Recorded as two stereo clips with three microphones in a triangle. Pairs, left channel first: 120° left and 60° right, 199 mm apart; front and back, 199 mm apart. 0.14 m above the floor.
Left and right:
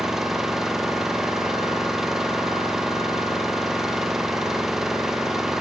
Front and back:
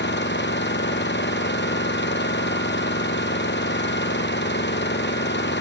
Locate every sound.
0.0 s an engine running: 30° left